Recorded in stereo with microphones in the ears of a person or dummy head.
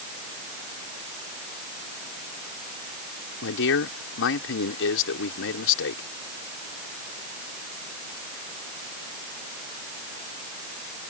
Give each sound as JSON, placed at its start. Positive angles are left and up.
{"t": 3.4, "sound": "a man speaking", "side_deg": 65}